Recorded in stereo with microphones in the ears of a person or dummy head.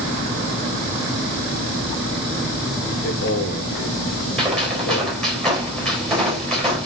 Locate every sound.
3.0 s a man speaking: 55° left (ahead or behind), 2.5 m
4.4 s a gunshot: centre (ahead or behind), 4 m